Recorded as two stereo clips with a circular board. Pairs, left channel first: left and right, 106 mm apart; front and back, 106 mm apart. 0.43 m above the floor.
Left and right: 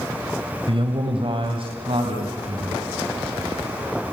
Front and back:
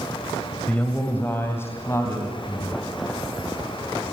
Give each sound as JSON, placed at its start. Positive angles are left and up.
{"t": 0.7, "sound": "a man speaking", "azimuth_deg": -75, "distance_m": 2.0}